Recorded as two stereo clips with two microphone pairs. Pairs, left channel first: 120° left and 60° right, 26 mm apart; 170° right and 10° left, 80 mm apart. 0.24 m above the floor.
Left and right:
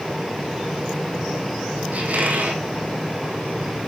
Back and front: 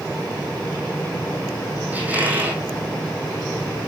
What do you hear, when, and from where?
1.9 s a squeak: 60° right, 3 m